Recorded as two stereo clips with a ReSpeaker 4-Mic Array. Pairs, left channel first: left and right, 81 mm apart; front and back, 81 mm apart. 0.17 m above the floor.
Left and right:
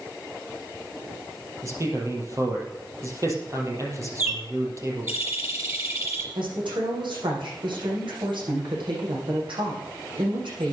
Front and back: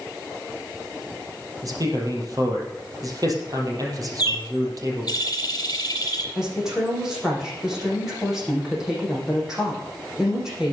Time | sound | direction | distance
1.6 | a man speaking | 140° right | 4.5 m
4.2 | a bird | 35° right | 3 m
6.3 | a woman speaking | 95° right | 8 m